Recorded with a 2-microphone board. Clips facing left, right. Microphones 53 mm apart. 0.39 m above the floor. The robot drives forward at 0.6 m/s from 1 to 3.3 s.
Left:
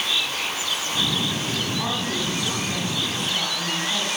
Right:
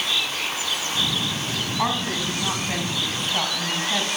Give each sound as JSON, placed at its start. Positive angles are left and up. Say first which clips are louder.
{"t": 1.8, "sound": "a woman speaking", "louder": "right 2 dB", "side_deg": -45, "distance_m": 3.0}